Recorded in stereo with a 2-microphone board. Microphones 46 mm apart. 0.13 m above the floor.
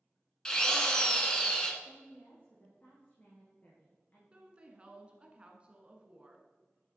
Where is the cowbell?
I don't hear a cowbell.